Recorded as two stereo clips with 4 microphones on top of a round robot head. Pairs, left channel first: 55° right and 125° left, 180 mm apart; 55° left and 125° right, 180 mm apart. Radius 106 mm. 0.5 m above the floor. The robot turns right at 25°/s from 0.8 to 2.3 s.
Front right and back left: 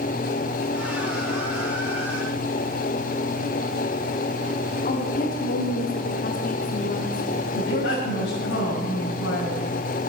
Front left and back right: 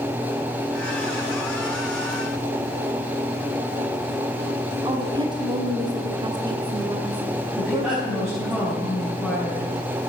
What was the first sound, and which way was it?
A woman speaking, 65° right.